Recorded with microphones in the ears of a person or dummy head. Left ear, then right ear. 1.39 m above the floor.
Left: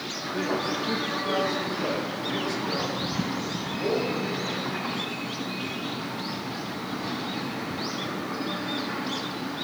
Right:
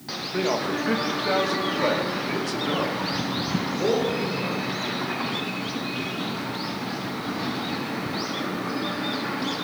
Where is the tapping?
I don't hear tapping.